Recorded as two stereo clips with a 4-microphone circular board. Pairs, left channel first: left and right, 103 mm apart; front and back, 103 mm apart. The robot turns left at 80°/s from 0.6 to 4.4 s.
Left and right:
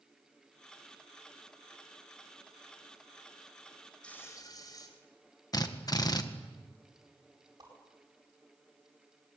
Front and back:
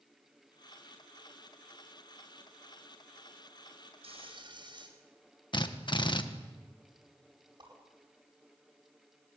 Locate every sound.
4.0 s frying: 170° left, 4.5 m; by 4.9 s 140° left, 4.5 m
5.5 s a drill: 40° left, 1.7 m
7.6 s a whoosh: 140° right, 9.5 m